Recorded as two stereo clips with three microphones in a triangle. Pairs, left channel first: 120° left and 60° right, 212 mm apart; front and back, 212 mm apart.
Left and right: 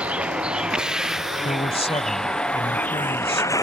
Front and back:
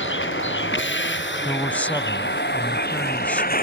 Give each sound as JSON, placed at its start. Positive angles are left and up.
{"t": 0.0, "sound": "a vehicle", "azimuth_deg": 25}
{"t": 1.4, "sound": "a man speaking", "azimuth_deg": 80}